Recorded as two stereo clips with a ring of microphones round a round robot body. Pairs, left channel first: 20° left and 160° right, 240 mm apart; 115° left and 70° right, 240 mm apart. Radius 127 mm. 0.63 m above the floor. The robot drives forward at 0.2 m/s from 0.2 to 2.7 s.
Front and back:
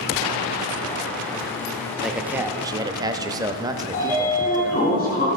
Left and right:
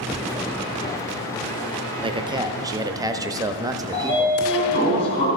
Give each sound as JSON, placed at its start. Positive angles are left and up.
{"t": 2.0, "sound": "a man speaking", "azimuth_deg": -70, "distance_m": 0.6}
{"t": 3.9, "sound": "a sliding door", "azimuth_deg": 75, "distance_m": 3.0}